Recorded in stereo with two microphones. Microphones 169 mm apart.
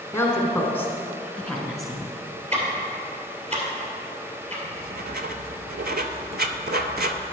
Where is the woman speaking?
15° left (ahead or behind), 1.1 m; by 2.1 s centre (ahead or behind), 1.4 m.